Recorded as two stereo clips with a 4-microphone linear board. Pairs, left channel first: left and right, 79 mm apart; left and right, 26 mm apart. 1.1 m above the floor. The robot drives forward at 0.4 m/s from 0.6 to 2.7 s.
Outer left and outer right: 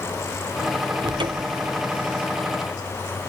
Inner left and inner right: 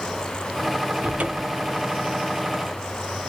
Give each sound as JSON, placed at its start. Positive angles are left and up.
{"t": 1.0, "sound": "a cupboard door", "side_deg": -80, "distance_m": 0.6}